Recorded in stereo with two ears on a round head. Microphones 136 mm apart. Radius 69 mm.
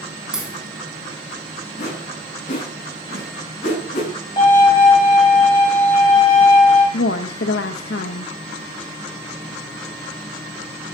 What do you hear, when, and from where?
0.3 s a crack: 5° right (ahead or behind), 3 m
1.8 s a whoosh: 45° left (ahead or behind), 7.5 m
4.4 s a violin: 30° left (ahead or behind), 4 m
6.9 s a woman speaking: 75° left (ahead or behind), 0.7 m